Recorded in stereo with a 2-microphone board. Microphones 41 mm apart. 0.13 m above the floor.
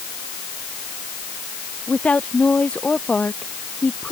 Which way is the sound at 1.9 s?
35° left (ahead or behind).